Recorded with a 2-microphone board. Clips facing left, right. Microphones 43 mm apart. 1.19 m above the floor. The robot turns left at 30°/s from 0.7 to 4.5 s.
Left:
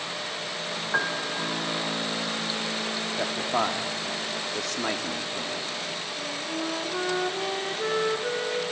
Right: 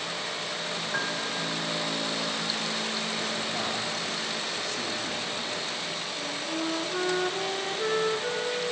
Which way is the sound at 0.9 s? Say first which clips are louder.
Left 5 dB; 30° left (ahead or behind).